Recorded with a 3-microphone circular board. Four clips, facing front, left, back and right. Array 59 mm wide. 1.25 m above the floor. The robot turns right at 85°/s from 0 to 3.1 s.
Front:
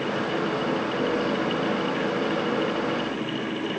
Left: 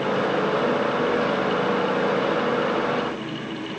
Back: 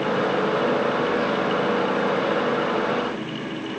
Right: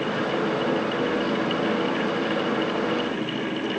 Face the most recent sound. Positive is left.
No sound to turn to.